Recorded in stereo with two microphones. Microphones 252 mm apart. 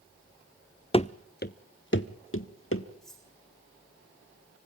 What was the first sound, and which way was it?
Running footsteps, 20° left (ahead or behind).